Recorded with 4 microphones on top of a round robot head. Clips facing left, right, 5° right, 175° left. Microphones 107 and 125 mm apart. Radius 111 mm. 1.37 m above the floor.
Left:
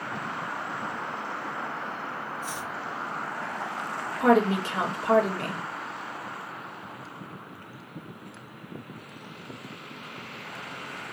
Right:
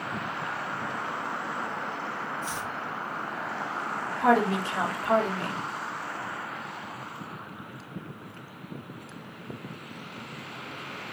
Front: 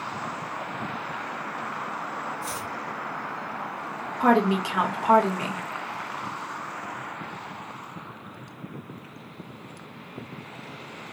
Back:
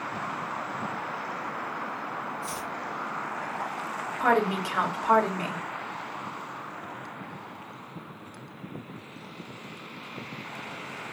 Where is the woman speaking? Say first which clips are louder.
Left 2 dB, front 4 dB; 65° left, 1.9 m.